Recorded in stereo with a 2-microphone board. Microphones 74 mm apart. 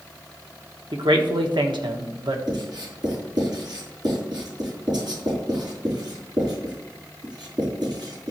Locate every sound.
0.9 s a man speaking: 85° right, 1.3 m
2.5 s writing: 65° right (ahead or behind), 4.5 m